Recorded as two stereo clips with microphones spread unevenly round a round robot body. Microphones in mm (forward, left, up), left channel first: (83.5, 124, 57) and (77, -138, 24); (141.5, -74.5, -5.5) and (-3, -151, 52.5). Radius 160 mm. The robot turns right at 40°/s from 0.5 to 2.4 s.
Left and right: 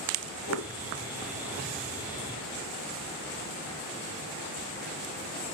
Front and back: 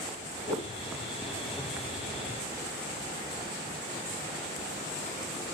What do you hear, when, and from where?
0.5 s a whoosh: 135° left, 4.5 m; by 0.7 s 140° left, 4.5 m